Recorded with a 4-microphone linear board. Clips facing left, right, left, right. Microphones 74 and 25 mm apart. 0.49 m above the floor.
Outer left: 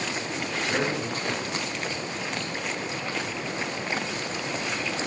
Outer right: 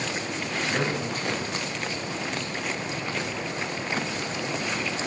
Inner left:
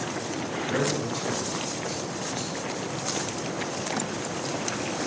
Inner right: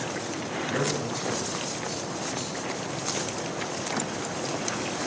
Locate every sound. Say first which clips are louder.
0.7 s a man speaking: outer left 1 dB, inner left 1 dB; 45° left (ahead or behind), 1.4 m